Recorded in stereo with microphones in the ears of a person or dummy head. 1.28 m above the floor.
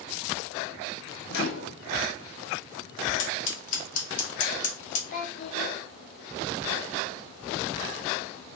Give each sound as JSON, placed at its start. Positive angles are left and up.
{"t": 1.3, "sound": "a microwave", "side_deg": 60, "distance_m": 0.8}
{"t": 3.2, "sound": "scissors", "side_deg": 45, "distance_m": 1.1}
{"t": 5.1, "sound": "a child speaking", "side_deg": 50, "distance_m": 0.7}